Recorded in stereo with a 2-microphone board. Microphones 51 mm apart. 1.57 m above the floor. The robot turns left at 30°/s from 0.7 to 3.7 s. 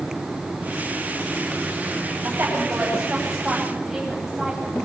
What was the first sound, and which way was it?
A woman speaking, 45° right (ahead or behind).